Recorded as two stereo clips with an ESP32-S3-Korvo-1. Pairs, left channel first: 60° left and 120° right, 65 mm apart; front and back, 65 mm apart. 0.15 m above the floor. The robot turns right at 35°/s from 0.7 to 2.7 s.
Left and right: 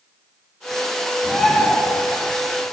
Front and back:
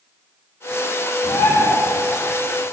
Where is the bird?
20° right, 4.5 m; by 1.8 s straight ahead, 4.5 m.